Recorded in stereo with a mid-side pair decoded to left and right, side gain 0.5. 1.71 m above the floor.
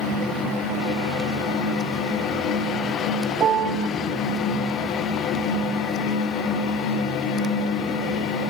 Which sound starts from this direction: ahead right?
A piano, at 3.4 s.